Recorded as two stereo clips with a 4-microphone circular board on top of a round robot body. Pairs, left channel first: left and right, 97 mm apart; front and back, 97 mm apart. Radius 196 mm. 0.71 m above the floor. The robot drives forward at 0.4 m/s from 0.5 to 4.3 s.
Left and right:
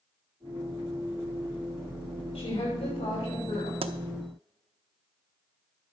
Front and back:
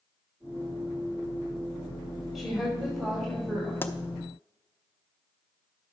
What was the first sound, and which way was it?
A woman speaking, 85° left.